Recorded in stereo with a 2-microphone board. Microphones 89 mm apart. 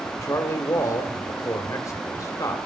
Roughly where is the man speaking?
Left.